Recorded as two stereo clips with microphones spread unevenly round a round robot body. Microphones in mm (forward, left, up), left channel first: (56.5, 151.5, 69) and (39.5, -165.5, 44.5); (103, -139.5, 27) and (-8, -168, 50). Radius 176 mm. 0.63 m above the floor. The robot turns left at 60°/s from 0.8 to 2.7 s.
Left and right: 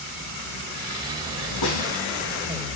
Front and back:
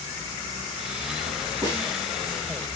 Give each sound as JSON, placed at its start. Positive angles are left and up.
{"t": 1.6, "sound": "a snare drum", "azimuth_deg": 120, "distance_m": 5.5}